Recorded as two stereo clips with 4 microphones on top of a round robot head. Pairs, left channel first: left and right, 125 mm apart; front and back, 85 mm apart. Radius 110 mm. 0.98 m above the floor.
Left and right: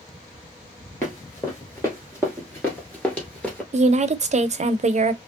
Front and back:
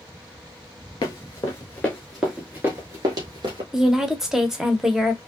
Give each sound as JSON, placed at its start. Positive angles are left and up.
{"t": 1.0, "sound": "running footsteps", "azimuth_deg": 15, "distance_m": 1.2}
{"t": 3.7, "sound": "a woman speaking", "azimuth_deg": -100, "distance_m": 0.7}